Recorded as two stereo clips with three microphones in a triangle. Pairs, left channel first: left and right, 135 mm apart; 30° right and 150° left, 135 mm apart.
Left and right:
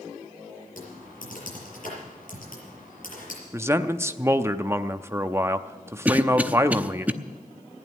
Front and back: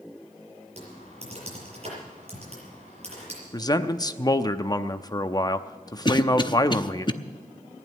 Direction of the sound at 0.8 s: 105° left.